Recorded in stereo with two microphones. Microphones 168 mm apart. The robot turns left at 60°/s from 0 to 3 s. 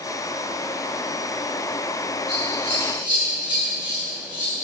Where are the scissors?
15° left (ahead or behind), 2.5 m; by 4.5 s 25° right (ahead or behind), 2.5 m.